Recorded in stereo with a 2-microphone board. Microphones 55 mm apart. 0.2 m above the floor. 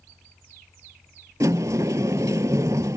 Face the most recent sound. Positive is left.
turn(degrees=-85)